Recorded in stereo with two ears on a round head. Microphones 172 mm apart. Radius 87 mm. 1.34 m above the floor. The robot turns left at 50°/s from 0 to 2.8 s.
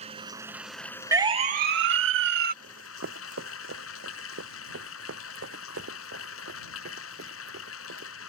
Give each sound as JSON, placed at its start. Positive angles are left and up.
{"t": 0.0, "sound": "running water", "azimuth_deg": -145}
{"t": 1.1, "sound": "a siren", "side_deg": -15}
{"t": 2.6, "sound": "running footsteps", "side_deg": -60}